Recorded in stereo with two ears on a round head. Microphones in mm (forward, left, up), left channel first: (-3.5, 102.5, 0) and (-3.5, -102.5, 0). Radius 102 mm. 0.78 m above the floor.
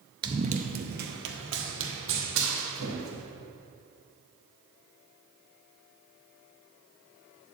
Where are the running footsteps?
20° right (ahead or behind), 0.8 m; by 3.2 s 70° right (ahead or behind), 3 m.